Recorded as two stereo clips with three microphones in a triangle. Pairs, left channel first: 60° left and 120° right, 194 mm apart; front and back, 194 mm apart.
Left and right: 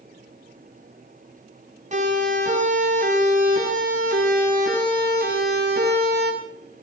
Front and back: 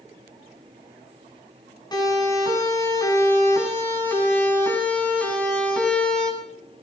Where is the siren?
70° right, 8 m; by 6.3 s 85° right, 8.5 m.